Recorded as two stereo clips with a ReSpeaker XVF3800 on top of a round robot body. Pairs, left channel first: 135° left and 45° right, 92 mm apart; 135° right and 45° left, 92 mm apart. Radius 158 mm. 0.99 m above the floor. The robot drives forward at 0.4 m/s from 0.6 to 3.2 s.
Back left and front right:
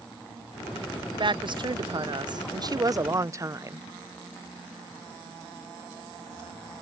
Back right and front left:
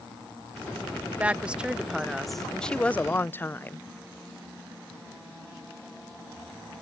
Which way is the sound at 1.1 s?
30° right.